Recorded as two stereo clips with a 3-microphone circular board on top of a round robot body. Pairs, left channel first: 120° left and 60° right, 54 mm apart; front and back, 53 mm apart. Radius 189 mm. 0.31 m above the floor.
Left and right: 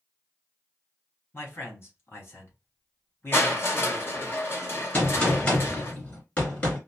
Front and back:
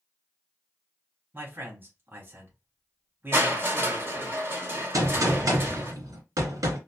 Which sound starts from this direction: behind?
A gunshot, at 4.9 s.